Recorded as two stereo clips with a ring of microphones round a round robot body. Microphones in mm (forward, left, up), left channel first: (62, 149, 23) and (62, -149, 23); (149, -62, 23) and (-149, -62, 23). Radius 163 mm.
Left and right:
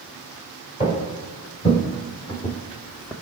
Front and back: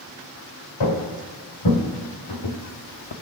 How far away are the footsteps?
About 3 m.